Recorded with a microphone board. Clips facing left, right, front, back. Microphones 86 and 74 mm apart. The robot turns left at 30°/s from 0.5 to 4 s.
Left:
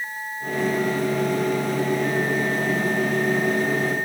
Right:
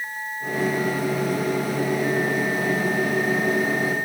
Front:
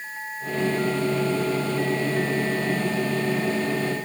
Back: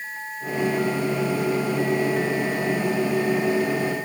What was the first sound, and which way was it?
Only background noise.